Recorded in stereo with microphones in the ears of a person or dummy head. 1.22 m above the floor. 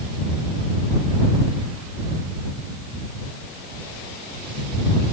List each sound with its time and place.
Only background noise.